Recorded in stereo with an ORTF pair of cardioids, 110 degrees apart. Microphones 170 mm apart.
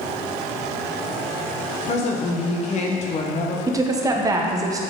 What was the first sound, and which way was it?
A woman speaking, 45° left.